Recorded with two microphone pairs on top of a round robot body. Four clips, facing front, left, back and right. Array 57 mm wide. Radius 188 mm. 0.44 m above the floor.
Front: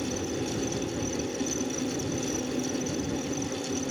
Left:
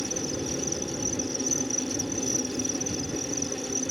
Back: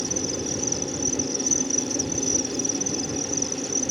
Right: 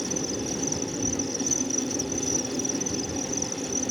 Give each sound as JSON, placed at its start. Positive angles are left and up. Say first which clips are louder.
{"t": 0.0, "sound": "an insect", "louder": "right 1 dB, back 1 dB", "azimuth_deg": -115}